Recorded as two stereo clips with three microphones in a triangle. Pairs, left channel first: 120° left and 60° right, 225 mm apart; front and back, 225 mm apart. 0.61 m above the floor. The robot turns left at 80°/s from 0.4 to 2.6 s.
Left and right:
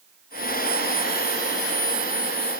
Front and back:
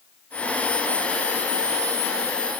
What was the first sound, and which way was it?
Only background noise.